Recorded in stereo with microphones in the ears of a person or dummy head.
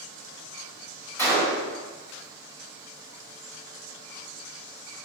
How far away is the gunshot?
About 1.4 m.